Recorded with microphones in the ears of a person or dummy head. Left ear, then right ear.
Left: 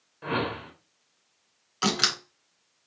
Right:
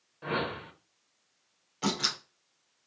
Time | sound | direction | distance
0.2 | a whoosh | 5° left (ahead or behind) | 0.8 m
1.8 | a door slam | 60° left (ahead or behind) | 2.5 m